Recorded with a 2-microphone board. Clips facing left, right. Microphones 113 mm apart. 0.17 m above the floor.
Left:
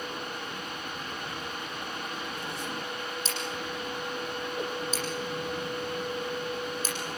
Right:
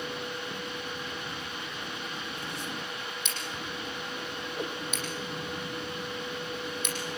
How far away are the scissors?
About 8 m.